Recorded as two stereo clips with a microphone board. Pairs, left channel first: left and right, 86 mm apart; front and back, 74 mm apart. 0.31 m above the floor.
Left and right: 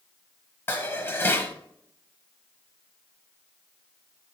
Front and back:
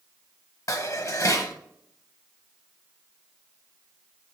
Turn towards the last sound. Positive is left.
turn(degrees=30)